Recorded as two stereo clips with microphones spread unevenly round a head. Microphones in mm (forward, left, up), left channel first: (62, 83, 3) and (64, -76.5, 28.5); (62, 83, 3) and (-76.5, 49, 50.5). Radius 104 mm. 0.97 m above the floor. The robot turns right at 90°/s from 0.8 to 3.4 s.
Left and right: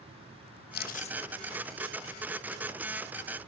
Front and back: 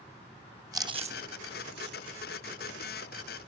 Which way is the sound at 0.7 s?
125° left.